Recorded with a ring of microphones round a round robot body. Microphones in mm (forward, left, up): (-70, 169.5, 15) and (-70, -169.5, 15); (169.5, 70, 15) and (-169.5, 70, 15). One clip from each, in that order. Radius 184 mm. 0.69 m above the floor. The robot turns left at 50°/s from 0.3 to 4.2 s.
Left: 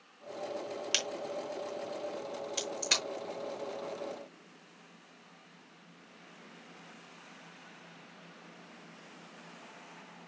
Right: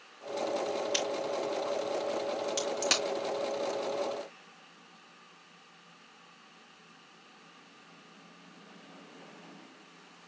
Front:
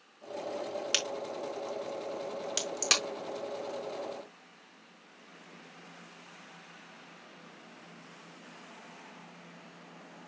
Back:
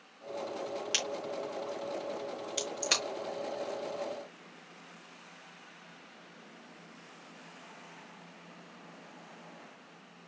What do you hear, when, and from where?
0.9 s a crack: 65° left, 4.5 m; by 3.0 s 40° right, 4.5 m